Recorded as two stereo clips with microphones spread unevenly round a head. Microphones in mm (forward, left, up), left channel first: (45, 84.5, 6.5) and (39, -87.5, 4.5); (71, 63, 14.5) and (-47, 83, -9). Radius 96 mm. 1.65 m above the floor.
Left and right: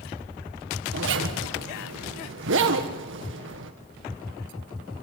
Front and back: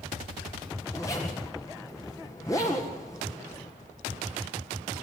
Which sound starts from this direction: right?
A zipper, at 0.9 s.